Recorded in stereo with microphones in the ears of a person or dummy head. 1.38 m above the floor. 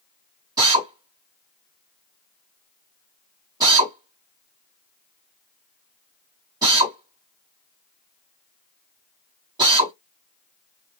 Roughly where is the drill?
Right.